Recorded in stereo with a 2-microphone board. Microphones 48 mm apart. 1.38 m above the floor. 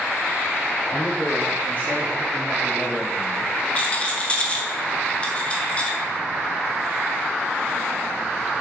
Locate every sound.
0.9 s a man speaking: 40° left (ahead or behind), 4.5 m; by 3.5 s 10° left (ahead or behind), 1.0 m
3.8 s a rattle: 25° left (ahead or behind), 1.6 m